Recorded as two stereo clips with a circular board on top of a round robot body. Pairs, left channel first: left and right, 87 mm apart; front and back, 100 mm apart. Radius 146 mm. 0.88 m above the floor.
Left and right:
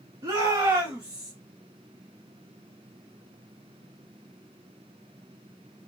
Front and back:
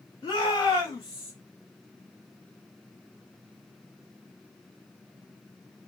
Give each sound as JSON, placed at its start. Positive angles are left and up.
{"t": 0.2, "sound": "a shout", "azimuth_deg": -50, "distance_m": 2.0}